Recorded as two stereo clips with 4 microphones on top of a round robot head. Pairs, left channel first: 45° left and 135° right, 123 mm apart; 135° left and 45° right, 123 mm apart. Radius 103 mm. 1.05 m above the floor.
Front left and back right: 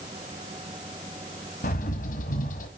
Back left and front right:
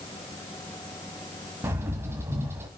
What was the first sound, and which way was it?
A bird, 25° left.